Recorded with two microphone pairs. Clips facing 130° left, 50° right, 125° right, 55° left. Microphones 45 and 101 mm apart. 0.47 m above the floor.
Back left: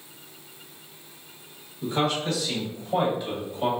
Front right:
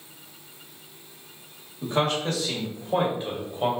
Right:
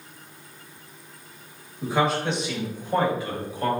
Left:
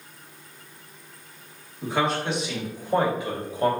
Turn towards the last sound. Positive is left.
turn(degrees=0)